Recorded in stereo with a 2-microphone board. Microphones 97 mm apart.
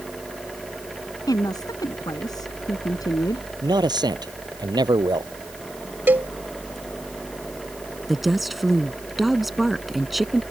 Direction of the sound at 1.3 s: 45° left (ahead or behind).